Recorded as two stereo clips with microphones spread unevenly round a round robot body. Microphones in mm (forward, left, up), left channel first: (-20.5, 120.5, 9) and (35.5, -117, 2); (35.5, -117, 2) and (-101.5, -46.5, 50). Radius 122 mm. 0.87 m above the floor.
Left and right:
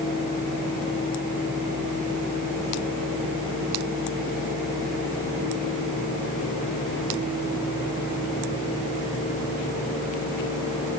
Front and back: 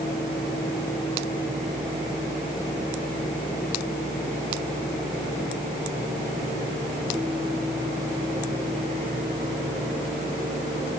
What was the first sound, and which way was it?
Only background noise.